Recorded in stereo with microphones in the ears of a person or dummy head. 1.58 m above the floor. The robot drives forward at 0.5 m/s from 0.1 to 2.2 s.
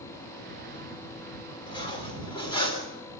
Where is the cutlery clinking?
30° left (ahead or behind), 3 m.